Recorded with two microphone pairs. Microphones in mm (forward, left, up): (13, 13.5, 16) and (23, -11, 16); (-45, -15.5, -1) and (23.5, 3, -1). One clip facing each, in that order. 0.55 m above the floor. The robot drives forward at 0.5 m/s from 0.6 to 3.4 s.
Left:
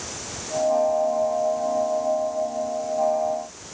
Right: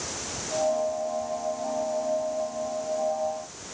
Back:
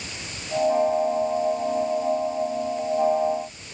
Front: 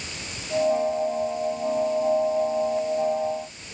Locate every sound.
Only background noise.